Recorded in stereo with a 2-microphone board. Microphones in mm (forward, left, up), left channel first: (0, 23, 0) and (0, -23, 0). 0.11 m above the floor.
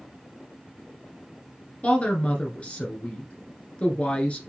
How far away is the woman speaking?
About 1.4 m.